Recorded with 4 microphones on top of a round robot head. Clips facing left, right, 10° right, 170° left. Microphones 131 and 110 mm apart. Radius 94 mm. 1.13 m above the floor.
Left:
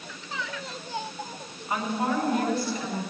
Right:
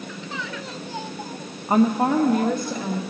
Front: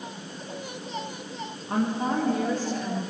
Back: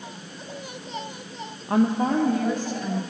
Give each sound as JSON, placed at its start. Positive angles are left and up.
{"t": 1.7, "sound": "a woman speaking", "azimuth_deg": -145, "distance_m": 0.7}